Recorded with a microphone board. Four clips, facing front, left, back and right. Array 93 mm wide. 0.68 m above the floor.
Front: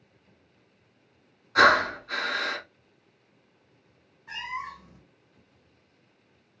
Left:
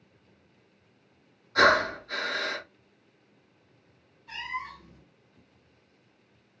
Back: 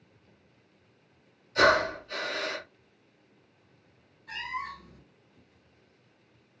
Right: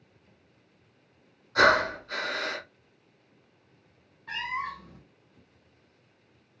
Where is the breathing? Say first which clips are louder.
Even, front 3 dB; 5° right, 2.5 m.